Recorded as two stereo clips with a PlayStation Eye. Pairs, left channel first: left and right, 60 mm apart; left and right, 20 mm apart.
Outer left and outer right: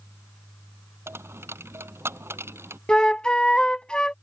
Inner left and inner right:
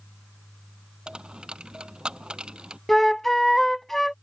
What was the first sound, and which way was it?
A dropped coin, 45° right (ahead or behind).